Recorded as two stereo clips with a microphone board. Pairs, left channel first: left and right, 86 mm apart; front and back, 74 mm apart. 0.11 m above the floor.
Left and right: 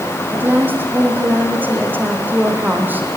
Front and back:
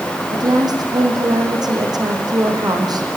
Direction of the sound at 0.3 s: 160° right.